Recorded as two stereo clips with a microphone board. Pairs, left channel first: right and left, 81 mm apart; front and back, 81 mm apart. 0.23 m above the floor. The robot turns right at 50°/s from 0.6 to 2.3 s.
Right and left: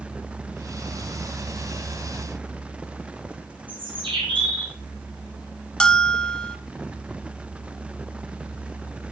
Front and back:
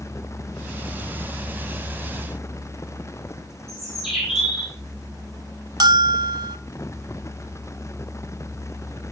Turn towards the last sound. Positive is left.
turn(degrees=-165)